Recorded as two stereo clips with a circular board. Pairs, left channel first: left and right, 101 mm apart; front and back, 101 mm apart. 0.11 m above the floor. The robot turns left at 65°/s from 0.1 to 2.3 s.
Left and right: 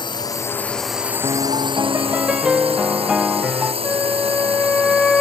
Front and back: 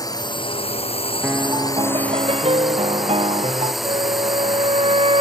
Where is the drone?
50° left; by 5.2 s 90° right.